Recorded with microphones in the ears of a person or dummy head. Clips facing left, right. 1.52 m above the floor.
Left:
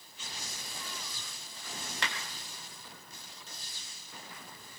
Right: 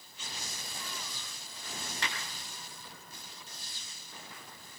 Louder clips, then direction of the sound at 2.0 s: Left 1 dB; 55° left (ahead or behind).